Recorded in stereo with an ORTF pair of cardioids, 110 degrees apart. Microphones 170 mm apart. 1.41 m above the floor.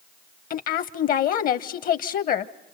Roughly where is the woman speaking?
Ahead left.